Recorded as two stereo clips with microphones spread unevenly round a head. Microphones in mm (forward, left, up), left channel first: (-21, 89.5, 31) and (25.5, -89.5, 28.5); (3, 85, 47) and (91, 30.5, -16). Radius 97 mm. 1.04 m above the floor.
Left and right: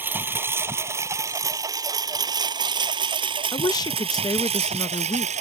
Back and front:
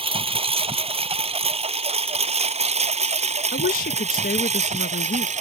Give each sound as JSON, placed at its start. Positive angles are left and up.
{"t": 0.0, "sound": "a lawn mower", "azimuth_deg": 5}
{"t": 3.5, "sound": "a woman speaking", "azimuth_deg": 175}